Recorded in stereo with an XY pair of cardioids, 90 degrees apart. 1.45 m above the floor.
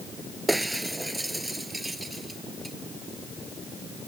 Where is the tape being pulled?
No tape being pulled in this recording.